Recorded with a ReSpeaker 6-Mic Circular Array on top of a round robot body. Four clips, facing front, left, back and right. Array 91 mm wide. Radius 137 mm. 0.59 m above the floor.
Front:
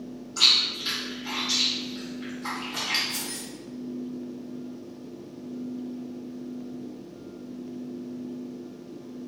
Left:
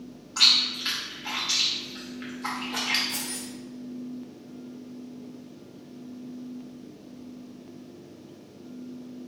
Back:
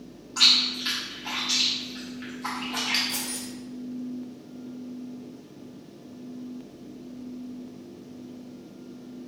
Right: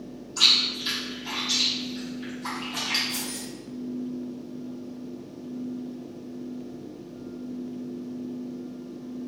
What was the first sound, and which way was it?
Chewing, 115° left.